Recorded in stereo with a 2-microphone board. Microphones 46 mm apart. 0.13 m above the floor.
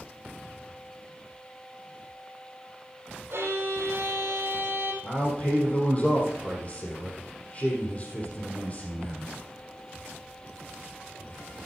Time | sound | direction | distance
3.3 | a violin | 60° right (ahead or behind) | 4 m
5.0 | a man speaking | 30° left (ahead or behind) | 3.5 m